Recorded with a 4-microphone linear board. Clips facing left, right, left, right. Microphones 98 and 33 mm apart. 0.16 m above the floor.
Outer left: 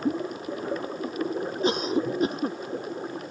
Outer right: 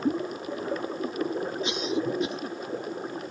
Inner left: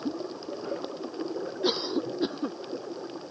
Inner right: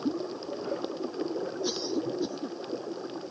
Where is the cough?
45° left (ahead or behind).